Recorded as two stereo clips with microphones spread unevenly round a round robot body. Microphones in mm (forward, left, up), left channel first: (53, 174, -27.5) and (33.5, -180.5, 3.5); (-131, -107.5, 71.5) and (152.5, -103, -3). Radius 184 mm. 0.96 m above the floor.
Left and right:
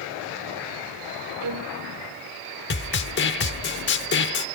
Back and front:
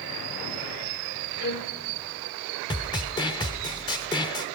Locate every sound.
1.4 s a violin: 135° right, 1.5 m
2.7 s a snare drum: 135° left, 0.7 m